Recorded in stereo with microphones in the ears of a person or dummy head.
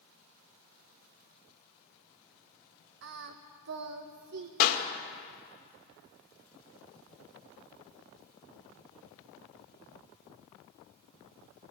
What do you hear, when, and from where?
3.0 s singing: 60° right (ahead or behind), 1.3 m
4.6 s a clap: 55° left (ahead or behind), 2 m